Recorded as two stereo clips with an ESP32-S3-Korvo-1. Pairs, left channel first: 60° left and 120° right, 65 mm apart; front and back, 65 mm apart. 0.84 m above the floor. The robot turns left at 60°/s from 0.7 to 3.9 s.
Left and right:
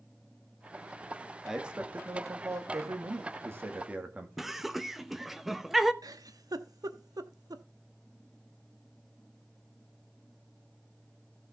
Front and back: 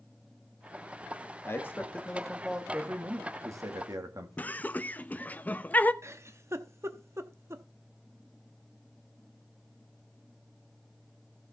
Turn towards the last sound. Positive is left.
turn(degrees=-135)